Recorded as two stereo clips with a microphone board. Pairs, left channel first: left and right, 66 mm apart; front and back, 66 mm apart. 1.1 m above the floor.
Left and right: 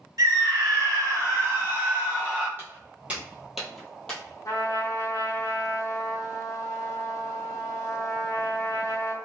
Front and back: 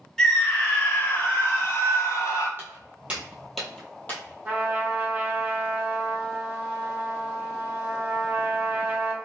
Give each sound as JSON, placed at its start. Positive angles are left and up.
{"t": 0.2, "sound": "a scream", "azimuth_deg": -80, "distance_m": 1.4}
{"t": 2.6, "sound": "footsteps", "azimuth_deg": -135, "distance_m": 1.6}
{"t": 4.5, "sound": "a trumpet", "azimuth_deg": 110, "distance_m": 0.8}